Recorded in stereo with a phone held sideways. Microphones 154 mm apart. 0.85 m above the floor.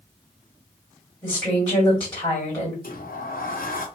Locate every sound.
1.2 s a woman speaking: 25° left (ahead or behind), 1.8 m
2.8 s a sliding door: 70° left (ahead or behind), 0.7 m